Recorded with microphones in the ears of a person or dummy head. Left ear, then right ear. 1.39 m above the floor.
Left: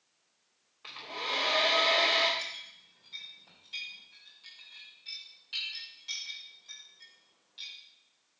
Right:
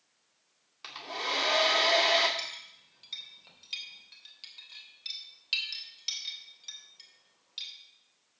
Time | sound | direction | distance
0.8 | a hair dryer | 75° right (ahead or behind) | 2.5 m
2.4 | a clink | 65° right (ahead or behind) | 3 m